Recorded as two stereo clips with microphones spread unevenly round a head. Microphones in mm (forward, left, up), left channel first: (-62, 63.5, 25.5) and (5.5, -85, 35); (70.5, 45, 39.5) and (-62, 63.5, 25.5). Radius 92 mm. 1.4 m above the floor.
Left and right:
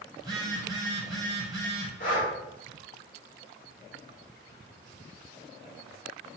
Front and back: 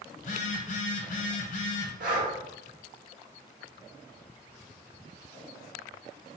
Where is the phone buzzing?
5° left, 0.8 m.